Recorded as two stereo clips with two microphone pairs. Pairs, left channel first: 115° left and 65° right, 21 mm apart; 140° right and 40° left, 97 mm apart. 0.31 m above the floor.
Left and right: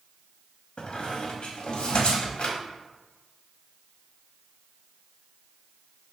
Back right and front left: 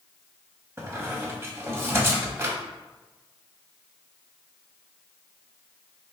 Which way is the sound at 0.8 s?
100° left.